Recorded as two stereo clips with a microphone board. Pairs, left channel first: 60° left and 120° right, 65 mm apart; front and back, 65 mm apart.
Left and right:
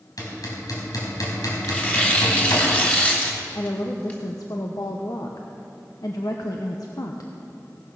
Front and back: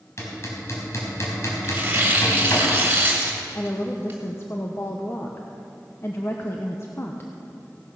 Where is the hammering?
40° left, 4 m.